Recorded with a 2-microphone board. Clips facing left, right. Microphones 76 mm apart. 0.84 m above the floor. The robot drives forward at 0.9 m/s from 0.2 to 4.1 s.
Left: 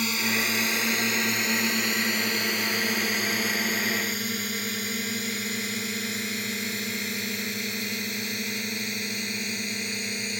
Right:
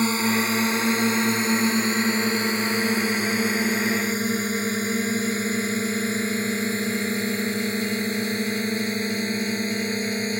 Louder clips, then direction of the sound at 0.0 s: Right 6 dB; 35° right (ahead or behind).